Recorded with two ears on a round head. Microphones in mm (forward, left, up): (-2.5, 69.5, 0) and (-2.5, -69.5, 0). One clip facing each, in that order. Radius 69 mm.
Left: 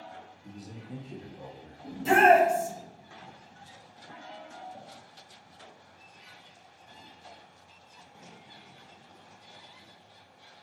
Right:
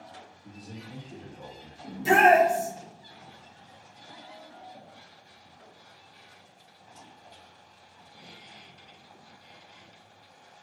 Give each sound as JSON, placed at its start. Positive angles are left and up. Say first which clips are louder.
{"t": 0.4, "sound": "a man speaking", "louder": "right 1 dB", "side_deg": 25, "distance_m": 1.0}
{"t": 1.8, "sound": "a shout", "louder": "right 1 dB", "side_deg": -10, "distance_m": 1.3}